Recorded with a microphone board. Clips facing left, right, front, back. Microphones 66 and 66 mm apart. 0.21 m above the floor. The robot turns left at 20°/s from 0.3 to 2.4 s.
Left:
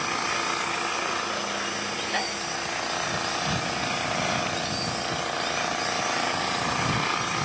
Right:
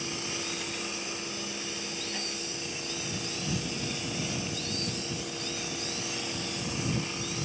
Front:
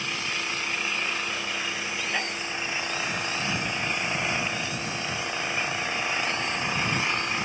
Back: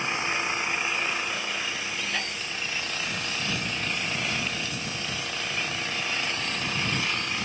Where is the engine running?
115° left; by 7.5 s 70° left.